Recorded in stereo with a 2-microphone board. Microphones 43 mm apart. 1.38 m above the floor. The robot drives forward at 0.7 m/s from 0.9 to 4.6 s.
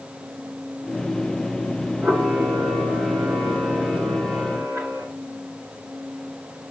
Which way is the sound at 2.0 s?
70° right (ahead or behind).